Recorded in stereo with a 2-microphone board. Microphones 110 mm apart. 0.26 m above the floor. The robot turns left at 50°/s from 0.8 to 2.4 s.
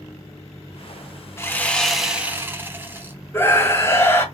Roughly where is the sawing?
Ahead left.